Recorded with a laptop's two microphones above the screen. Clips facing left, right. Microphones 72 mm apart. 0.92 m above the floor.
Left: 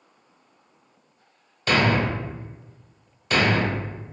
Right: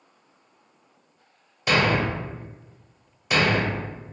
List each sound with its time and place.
1.7 s a thud: 10° right (ahead or behind), 1.0 m